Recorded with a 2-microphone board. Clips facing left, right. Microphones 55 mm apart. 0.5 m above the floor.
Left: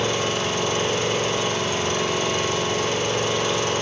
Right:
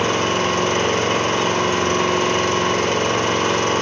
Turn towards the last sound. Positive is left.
turn(degrees=-50)  # may be behind; listen again after turning